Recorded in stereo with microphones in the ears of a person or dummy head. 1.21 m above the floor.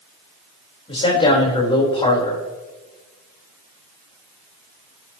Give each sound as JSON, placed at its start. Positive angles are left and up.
{"t": 0.9, "sound": "a man speaking", "side_deg": 30, "distance_m": 4.0}